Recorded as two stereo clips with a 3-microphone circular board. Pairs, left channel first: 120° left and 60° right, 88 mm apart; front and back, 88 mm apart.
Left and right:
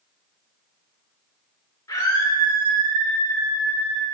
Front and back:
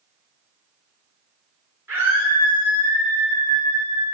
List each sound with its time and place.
1.9 s a scream: 130° left, 1.9 m; by 4.0 s straight behind, 4 m